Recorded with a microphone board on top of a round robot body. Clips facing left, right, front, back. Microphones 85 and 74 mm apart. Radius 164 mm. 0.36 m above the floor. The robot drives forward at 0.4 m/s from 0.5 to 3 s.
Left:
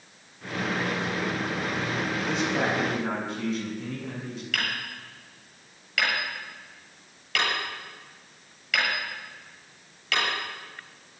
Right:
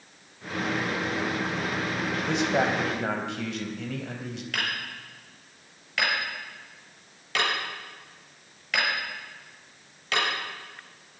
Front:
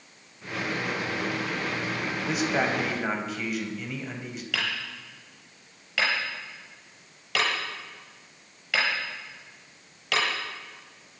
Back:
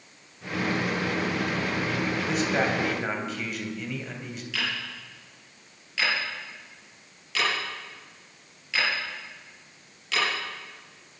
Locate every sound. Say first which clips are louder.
2.3 s a man speaking: right 3 dB, front 1 dB; 80° right, 3.5 m; by 4.4 s 85° right, 3.5 m
4.5 s hammering: left 1 dB, even; 30° right, 7.5 m